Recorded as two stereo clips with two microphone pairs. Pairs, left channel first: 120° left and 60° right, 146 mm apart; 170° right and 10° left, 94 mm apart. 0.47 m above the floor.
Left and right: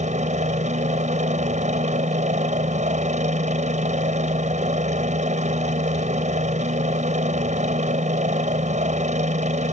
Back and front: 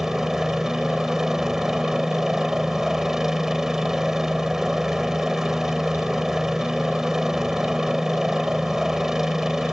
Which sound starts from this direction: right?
A helicopter, at 0.0 s.